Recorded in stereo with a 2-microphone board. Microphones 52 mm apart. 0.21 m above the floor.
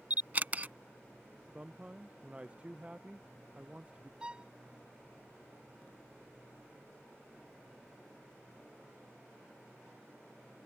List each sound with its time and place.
0.1 s a camera shutter: 35° right (ahead or behind)
1.5 s a man speaking: 20° right (ahead or behind)
4.2 s a violin: 20° right (ahead or behind)